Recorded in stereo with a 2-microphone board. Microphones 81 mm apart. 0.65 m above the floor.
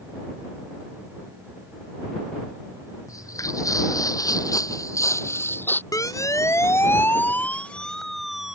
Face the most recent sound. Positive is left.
turn(degrees=-10)  # may be behind; listen again after turning